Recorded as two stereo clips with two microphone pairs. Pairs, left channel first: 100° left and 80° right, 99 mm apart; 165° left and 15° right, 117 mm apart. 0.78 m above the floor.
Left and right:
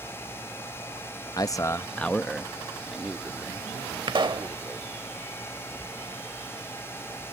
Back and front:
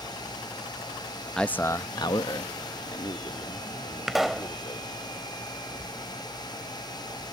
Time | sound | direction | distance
1.4 | a man speaking | 80° left | ?
4.1 | a pop | 100° right | ?